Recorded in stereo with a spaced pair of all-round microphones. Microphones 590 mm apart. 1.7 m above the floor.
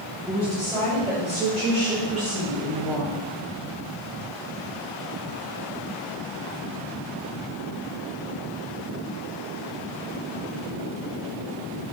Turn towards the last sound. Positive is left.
turn(degrees=-35)  # may be behind; listen again after turning